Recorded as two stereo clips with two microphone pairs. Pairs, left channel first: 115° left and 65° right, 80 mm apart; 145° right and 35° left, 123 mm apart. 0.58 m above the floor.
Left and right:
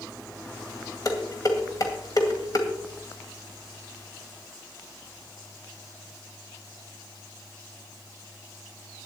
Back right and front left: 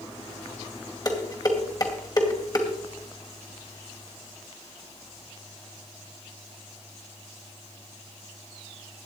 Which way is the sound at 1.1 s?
155° left.